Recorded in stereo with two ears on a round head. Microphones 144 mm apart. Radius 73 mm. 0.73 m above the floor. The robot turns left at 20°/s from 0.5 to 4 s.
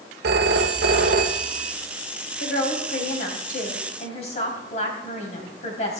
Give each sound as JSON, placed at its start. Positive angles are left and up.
{"t": 0.2, "sound": "a phone ringing", "side_deg": -70, "distance_m": 1.3}
{"t": 2.4, "sound": "a woman speaking", "azimuth_deg": 75, "distance_m": 4.0}